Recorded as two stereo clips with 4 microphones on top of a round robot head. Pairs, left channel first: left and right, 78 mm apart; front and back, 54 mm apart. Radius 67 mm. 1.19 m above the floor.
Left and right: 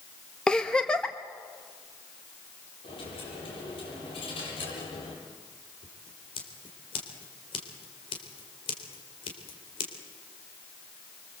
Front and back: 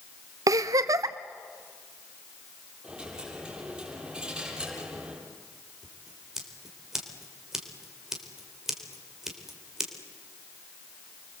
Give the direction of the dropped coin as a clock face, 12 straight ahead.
8 o'clock.